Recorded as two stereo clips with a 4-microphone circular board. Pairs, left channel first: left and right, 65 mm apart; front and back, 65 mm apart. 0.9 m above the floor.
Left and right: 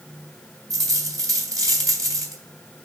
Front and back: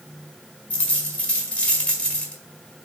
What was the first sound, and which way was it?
A dropped coin, 65° right.